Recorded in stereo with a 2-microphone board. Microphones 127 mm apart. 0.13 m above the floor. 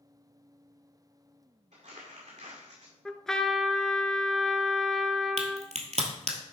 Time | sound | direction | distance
1.7 | crumpling | 80° right | 2 m
3.0 | a trumpet | 5° left (ahead or behind) | 0.5 m
5.4 | a crack | 60° right (ahead or behind) | 1.5 m